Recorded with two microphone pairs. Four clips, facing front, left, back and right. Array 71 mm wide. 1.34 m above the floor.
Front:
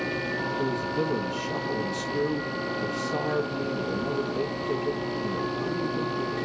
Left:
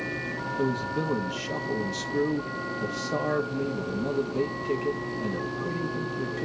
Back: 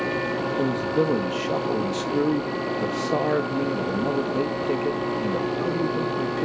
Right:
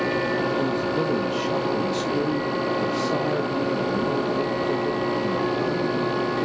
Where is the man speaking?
170° right, 2 m.